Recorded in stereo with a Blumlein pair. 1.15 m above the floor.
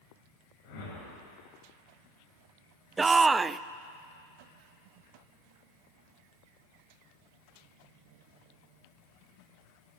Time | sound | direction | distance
0.6 | a whoosh | 50° left | 9.5 m
3.0 | a shout | 15° right | 0.6 m